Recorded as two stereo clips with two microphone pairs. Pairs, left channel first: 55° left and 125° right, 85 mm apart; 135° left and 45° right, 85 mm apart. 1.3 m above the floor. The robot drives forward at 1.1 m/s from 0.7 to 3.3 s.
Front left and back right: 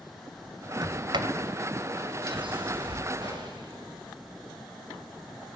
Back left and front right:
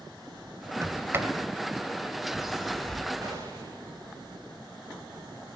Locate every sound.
0.8 s a sliding door: 95° right, 2.5 m; by 3.0 s 140° right, 3.5 m
3.2 s a gunshot: 95° right, 8 m